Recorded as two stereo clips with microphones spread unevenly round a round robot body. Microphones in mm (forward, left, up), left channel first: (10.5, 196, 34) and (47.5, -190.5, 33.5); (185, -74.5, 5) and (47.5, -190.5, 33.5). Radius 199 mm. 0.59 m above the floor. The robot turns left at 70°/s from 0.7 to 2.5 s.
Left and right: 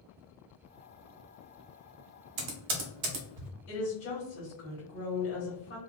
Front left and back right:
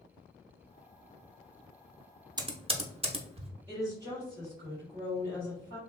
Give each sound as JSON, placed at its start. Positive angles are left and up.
{"t": 2.4, "sound": "typing on a keyboard", "azimuth_deg": -70, "distance_m": 0.9}
{"t": 3.7, "sound": "a woman speaking", "azimuth_deg": 155, "distance_m": 1.5}